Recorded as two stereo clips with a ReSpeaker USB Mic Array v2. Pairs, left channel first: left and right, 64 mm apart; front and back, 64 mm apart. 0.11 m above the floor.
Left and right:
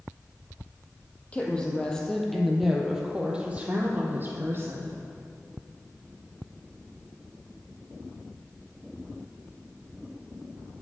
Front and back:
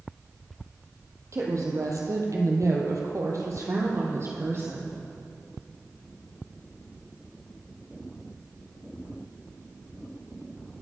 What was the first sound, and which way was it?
A woman speaking, 155° left.